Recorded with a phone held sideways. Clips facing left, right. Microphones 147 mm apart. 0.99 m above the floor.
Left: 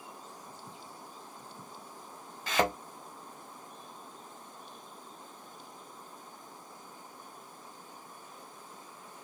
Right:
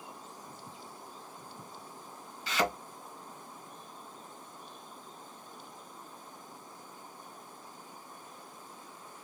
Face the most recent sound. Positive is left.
turn(degrees=50)  # may be behind; listen again after turning